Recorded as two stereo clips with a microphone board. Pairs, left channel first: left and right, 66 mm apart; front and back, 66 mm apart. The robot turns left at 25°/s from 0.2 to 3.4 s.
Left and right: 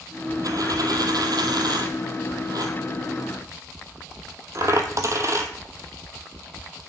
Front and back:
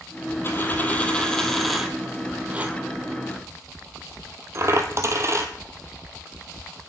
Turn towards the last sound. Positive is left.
turn(degrees=-130)